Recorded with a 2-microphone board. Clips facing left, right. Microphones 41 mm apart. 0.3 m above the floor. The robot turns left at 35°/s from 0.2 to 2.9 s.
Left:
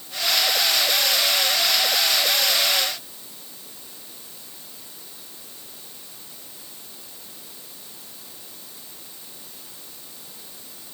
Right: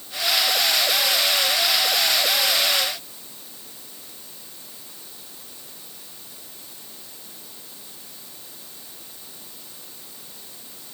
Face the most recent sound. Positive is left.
No sound to turn to.